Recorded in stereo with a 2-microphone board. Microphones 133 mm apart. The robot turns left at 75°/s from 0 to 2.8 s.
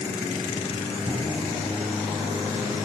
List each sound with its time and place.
1.1 s a cupboard door: 60° left (ahead or behind), 3 m; by 1.6 s 30° left (ahead or behind), 3 m